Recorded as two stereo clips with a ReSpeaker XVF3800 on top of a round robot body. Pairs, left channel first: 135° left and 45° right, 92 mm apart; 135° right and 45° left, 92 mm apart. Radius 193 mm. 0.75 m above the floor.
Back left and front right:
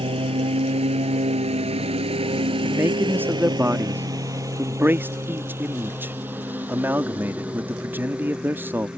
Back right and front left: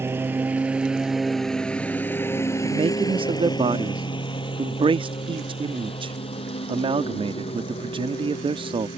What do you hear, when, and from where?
0.0 s a lawn mower: 20° right; by 9.0 s 125° right
2.6 s a man speaking: 25° left